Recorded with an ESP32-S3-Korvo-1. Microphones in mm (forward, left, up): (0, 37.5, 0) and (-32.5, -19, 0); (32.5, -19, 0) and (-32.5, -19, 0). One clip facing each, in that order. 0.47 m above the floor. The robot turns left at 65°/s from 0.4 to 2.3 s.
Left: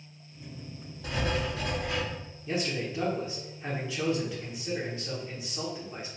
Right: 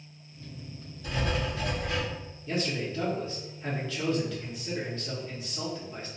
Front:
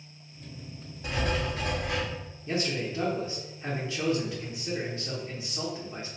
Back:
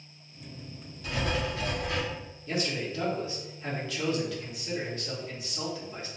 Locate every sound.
1.0 s writing: 60° left, 1.1 m; by 2.0 s 5° right, 1.1 m
2.5 s a man speaking: 10° left, 0.8 m